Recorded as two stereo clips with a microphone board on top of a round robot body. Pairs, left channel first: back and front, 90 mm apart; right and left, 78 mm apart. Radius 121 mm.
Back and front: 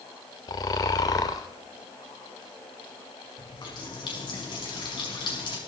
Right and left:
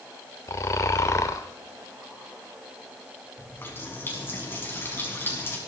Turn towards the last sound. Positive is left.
turn(degrees=-150)